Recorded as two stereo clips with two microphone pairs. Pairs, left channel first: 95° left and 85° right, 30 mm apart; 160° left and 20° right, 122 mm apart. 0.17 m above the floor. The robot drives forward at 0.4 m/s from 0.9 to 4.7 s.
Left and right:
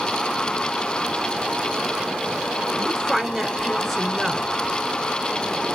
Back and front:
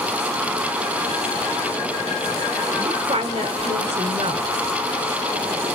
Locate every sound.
2.8 s a woman speaking: 5° right, 2 m